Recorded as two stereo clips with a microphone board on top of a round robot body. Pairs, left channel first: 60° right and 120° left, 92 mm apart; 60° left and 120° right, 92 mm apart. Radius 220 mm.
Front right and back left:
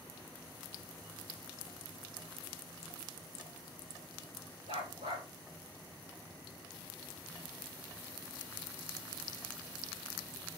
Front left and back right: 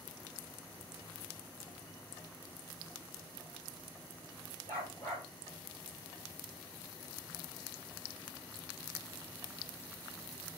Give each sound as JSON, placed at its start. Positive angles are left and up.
{"t": 4.7, "sound": "a dog barking", "azimuth_deg": 120, "distance_m": 8.5}